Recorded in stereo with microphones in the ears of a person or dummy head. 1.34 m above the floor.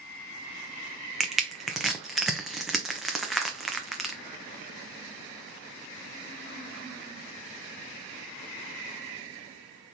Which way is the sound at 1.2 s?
5° right (ahead or behind).